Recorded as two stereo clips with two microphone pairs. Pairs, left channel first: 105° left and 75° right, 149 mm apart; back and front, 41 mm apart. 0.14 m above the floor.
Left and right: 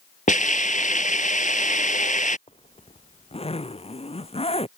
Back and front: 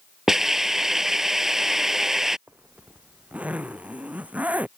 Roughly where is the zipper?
Ahead left.